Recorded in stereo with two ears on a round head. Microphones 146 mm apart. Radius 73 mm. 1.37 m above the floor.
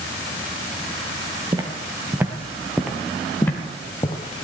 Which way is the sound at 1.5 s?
25° right (ahead or behind).